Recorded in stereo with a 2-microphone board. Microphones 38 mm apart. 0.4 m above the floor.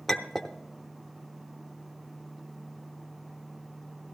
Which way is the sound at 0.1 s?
5° left (ahead or behind).